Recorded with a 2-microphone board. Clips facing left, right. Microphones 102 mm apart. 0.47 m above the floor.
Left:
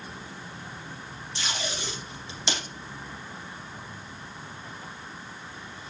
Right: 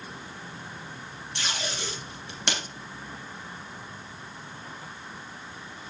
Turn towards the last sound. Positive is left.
turn(degrees=-65)  # may be behind; listen again after turning